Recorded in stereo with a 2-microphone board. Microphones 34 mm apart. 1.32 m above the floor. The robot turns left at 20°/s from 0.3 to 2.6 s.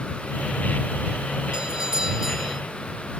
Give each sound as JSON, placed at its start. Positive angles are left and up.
{"t": 1.5, "sound": "a doorbell", "side_deg": -25}